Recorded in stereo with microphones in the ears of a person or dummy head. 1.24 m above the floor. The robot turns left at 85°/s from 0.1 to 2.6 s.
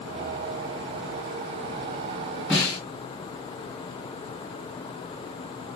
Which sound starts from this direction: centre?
A snare drum, at 2.5 s.